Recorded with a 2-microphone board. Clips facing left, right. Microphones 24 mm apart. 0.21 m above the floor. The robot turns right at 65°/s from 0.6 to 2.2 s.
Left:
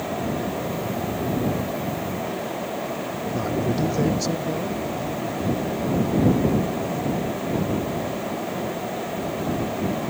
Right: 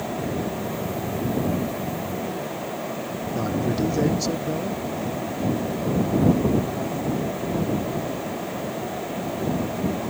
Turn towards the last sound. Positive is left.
turn(degrees=0)  # may be behind; listen again after turning